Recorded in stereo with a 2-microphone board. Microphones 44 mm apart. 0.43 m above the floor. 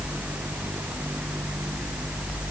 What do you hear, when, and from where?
Only background noise.